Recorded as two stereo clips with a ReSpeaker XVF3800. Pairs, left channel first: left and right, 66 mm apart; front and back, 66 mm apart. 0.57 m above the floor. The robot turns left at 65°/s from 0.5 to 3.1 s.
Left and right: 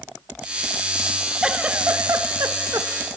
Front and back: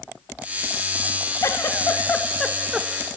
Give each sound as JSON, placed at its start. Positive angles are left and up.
{"t": 1.4, "sound": "a giggle", "azimuth_deg": -15, "distance_m": 0.9}